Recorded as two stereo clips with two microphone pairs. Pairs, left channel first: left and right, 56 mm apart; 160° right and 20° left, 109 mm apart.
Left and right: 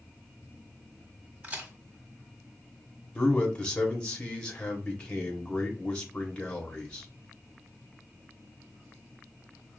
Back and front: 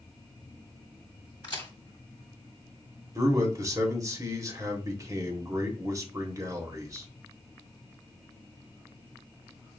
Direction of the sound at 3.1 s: 40° left.